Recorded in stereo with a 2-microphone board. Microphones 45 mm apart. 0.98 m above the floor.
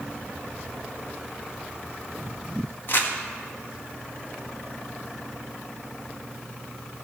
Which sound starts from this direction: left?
Crumpling, at 2.9 s.